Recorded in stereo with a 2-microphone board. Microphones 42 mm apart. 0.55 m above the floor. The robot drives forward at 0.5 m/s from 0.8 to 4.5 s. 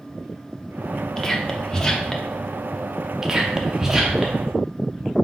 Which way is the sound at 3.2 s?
15° right (ahead or behind).